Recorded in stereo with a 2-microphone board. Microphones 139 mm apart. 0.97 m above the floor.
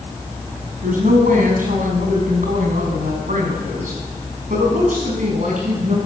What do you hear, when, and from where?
0.8 s a woman speaking: 80° right, 8 m; by 6.0 s 70° right (ahead or behind), 9 m